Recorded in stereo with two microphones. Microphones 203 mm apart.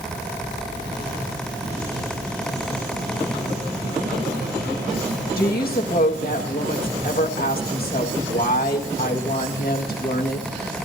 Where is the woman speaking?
55° left (ahead or behind), 1.9 m.